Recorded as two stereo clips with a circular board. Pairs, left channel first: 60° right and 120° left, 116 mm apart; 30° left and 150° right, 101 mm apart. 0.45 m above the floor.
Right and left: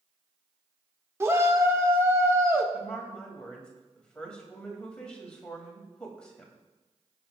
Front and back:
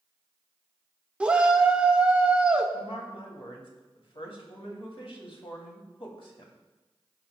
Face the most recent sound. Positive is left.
turn(degrees=20)